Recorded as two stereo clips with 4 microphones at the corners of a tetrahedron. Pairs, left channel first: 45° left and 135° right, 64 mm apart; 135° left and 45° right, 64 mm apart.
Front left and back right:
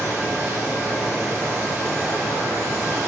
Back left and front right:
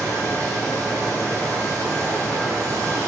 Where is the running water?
75° right, 3 m.